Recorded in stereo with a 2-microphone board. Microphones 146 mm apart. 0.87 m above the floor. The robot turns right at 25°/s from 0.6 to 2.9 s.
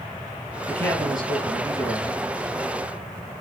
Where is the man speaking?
50° right, 8 m; by 2.2 s 10° right, 8 m.